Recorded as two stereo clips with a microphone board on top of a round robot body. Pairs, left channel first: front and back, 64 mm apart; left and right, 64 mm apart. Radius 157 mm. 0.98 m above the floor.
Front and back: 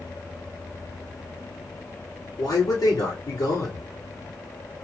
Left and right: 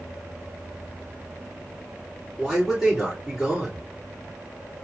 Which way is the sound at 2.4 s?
Straight ahead.